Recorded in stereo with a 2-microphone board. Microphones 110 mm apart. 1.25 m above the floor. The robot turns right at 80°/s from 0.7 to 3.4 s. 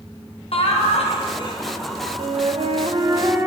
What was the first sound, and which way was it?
Laughter, 75° left.